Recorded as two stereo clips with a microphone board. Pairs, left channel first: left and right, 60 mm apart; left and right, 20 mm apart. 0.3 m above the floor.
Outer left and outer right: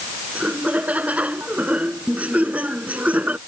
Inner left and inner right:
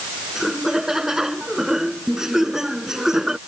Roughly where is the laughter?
Right.